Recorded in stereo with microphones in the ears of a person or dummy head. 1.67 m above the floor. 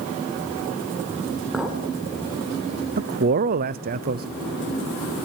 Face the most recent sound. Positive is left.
turn(degrees=-40)  # may be behind; listen again after turning